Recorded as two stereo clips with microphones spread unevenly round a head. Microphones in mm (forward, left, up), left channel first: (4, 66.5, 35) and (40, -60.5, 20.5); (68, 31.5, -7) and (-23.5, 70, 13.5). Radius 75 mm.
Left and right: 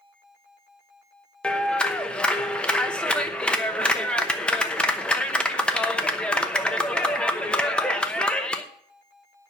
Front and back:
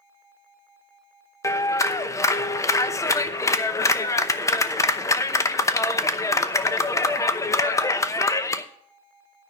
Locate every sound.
1.4 s a clap: 35° left, 0.8 m